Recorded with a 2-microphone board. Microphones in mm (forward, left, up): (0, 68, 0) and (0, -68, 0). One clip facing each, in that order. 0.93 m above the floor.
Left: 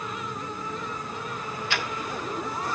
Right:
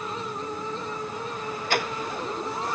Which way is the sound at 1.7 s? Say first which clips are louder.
Right 6 dB; 45° right (ahead or behind).